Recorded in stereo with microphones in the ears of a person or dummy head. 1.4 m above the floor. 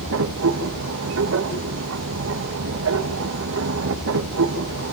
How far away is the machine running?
About 2 m.